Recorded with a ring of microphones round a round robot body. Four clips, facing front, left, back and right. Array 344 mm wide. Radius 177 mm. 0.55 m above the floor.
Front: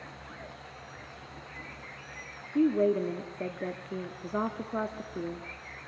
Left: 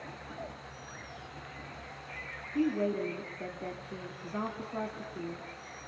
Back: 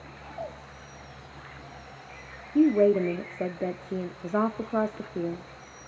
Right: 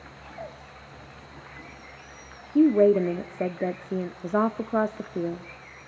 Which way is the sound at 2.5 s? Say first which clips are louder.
Right 12 dB, back 5 dB; 115° right.